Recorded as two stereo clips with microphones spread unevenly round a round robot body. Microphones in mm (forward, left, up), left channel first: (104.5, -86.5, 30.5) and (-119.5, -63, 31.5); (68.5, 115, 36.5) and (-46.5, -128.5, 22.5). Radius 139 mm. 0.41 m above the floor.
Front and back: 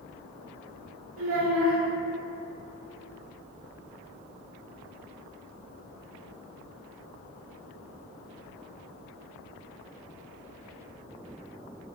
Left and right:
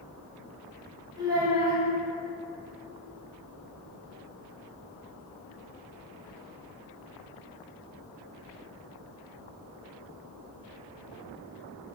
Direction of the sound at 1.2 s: 170° left.